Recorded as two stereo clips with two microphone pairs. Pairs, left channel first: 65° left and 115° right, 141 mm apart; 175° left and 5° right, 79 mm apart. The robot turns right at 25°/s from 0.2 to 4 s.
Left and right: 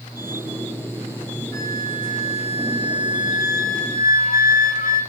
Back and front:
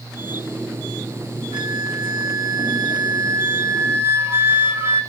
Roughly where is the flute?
Ahead.